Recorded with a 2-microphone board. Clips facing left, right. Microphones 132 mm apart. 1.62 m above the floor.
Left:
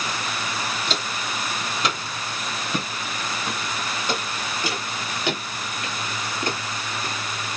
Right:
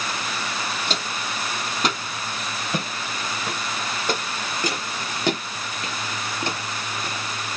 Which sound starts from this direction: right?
Footsteps, at 0.9 s.